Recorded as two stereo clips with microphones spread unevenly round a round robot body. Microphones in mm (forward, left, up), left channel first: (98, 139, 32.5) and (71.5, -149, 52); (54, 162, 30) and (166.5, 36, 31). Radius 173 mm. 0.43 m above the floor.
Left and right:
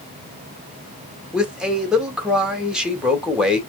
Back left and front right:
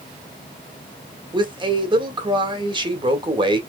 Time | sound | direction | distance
1.3 | a man speaking | 5° right | 1.6 m